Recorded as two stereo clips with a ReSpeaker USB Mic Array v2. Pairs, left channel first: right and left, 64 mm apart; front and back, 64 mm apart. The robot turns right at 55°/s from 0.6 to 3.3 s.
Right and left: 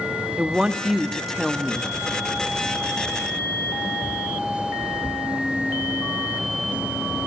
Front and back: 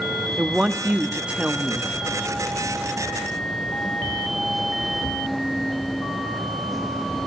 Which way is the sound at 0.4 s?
145° left.